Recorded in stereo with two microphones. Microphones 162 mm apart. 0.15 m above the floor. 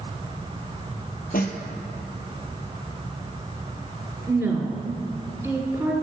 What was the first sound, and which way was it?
A snare drum, 70° left (ahead or behind).